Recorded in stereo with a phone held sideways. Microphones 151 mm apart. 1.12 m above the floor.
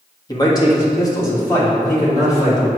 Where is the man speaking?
30° left (ahead or behind), 1.5 m; by 2.7 s 20° left (ahead or behind), 3.5 m.